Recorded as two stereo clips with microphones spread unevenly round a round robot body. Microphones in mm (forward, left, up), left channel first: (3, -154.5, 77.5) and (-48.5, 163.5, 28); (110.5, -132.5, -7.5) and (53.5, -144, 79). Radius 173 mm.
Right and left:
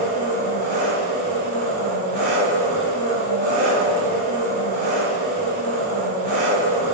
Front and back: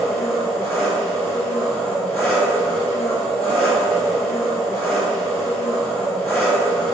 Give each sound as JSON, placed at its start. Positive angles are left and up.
{"t": 0.0, "sound": "an engine running", "azimuth_deg": 35, "distance_m": 2.0}